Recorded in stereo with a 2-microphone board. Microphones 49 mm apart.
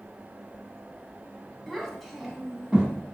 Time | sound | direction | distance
1.7 | a child speaking | 5° left (ahead or behind) | 1.1 m